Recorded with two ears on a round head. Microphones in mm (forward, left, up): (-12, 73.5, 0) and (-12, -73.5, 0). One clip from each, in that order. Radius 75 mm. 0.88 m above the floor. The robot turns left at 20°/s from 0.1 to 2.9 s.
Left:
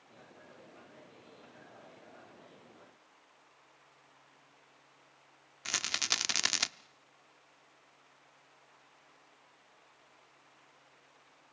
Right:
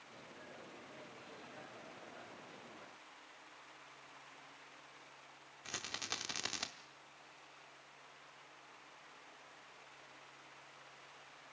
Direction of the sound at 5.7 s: 50° left (ahead or behind).